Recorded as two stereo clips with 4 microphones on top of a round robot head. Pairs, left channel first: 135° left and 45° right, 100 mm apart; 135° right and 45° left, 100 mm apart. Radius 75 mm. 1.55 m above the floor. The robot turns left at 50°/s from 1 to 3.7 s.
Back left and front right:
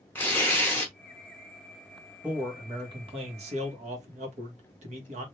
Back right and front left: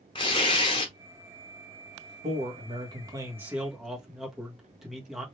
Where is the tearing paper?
160° right, 0.7 m.